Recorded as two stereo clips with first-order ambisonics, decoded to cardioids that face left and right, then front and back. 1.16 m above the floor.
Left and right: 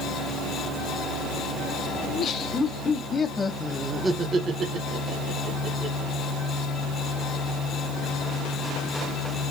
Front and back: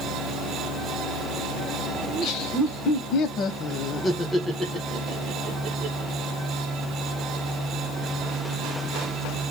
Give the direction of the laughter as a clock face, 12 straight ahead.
11 o'clock.